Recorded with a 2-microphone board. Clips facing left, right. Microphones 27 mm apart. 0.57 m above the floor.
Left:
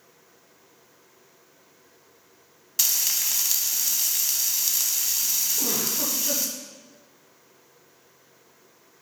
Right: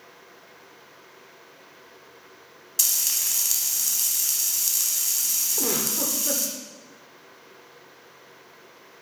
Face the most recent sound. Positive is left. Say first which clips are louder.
# right 1 dB
turn(degrees=-60)  # may be behind; listen again after turning